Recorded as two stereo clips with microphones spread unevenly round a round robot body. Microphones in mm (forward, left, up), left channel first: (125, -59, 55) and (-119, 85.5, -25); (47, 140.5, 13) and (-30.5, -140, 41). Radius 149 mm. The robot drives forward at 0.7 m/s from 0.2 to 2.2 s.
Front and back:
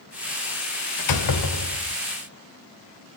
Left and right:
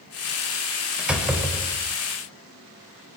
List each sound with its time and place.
1.0 s a door slam: 15° right, 2.5 m; by 2.0 s 25° right, 2 m